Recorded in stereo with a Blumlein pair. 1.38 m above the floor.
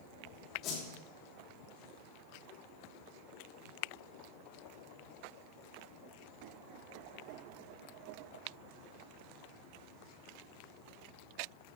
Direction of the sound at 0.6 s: 30° left.